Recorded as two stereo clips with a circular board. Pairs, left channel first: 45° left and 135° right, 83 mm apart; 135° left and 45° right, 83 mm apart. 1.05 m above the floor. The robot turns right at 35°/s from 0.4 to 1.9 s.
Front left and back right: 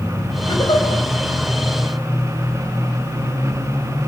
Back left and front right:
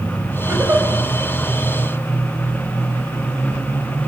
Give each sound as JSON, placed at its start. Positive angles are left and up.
{"t": 0.5, "sound": "a giggle", "azimuth_deg": 10, "distance_m": 4.0}